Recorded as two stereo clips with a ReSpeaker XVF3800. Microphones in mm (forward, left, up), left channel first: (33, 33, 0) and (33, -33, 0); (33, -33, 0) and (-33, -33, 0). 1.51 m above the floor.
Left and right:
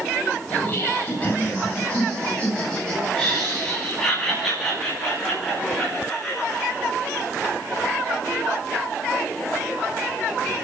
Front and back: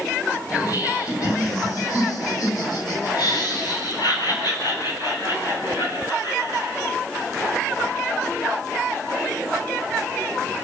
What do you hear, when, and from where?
0.5 s laughter: 30° left, 8.5 m; by 6.8 s straight ahead, 15.5 m